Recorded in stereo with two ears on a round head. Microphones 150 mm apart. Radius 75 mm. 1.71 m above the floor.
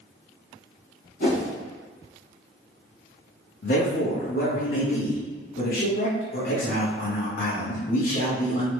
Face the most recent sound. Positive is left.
turn(degrees=55)  # may be behind; listen again after turning